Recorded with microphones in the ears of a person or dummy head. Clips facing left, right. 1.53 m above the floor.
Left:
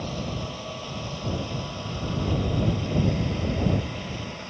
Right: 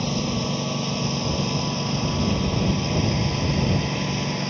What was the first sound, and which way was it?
A lawn mower, 75° right (ahead or behind).